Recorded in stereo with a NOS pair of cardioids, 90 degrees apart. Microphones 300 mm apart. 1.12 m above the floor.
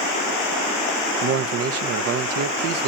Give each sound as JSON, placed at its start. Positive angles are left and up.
{"t": 1.2, "sound": "a man speaking", "azimuth_deg": -55, "distance_m": 0.7}